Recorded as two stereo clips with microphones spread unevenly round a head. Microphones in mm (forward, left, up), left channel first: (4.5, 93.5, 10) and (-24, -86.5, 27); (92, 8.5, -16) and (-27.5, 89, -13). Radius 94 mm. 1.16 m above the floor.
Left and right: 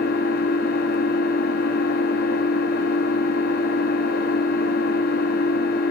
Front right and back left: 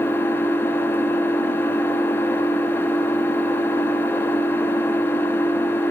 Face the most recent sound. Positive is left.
turn(degrees=40)